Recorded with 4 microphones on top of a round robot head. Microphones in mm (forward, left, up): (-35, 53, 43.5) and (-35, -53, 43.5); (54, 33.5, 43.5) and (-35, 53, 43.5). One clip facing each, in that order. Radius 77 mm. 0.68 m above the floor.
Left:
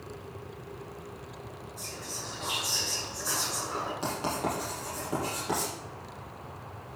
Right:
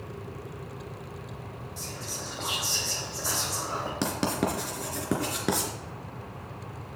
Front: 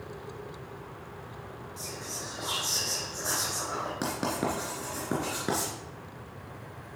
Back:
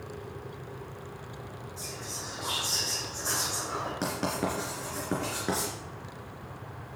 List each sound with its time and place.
1.8 s whispering: 90° right, 3.5 m
4.0 s writing: 95° right, 3 m